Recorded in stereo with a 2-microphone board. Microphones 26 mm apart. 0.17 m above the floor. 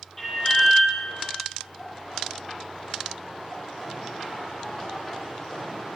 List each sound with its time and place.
0.2 s an alarm: 15° left (ahead or behind), 5 m